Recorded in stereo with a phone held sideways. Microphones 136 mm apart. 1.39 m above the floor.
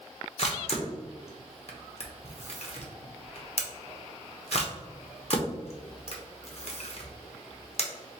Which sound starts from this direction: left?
A camera shutter, at 0.4 s.